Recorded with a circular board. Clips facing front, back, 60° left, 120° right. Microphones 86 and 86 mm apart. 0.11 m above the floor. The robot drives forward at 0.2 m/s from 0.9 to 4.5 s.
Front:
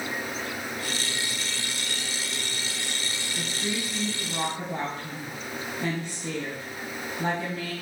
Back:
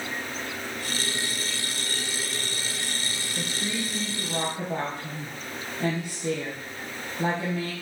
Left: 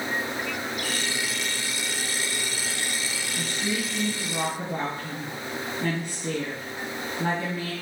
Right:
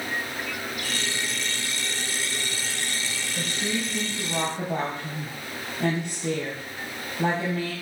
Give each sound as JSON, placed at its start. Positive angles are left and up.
{"t": 3.4, "sound": "a woman speaking", "azimuth_deg": -140, "distance_m": 3.0}